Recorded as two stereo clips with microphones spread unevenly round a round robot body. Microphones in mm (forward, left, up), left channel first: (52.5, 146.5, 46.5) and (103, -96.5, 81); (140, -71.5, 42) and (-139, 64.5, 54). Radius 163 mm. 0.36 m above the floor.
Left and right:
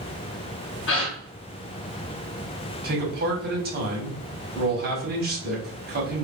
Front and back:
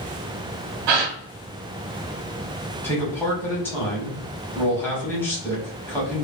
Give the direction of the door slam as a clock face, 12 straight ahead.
No door slam in this recording.